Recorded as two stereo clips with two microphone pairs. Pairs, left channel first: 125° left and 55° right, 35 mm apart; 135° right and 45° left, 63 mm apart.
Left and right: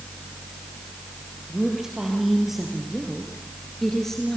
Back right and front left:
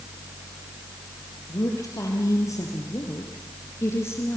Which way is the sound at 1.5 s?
135° right.